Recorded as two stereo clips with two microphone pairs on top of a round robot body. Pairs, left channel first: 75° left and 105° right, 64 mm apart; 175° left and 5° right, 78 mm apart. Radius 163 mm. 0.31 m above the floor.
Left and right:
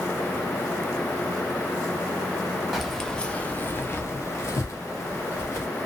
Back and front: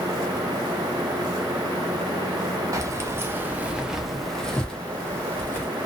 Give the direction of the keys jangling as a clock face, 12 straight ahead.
1 o'clock.